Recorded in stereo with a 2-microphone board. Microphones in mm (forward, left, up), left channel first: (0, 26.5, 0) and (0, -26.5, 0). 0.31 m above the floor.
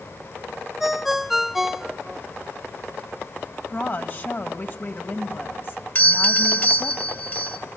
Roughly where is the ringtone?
Centre.